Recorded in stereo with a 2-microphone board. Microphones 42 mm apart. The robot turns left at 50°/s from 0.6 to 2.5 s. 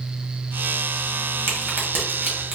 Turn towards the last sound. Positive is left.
turn(degrees=-25)  # may be behind; listen again after turning